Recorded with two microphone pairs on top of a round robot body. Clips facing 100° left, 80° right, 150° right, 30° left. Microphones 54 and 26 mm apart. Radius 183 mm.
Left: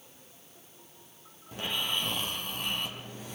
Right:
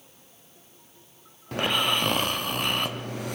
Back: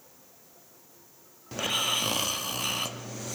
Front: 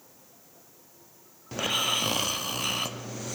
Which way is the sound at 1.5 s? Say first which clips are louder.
Right 8 dB, front 1 dB; 60° right.